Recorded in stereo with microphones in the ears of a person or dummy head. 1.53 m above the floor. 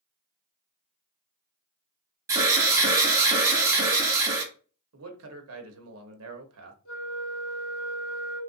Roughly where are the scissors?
I don't hear scissors.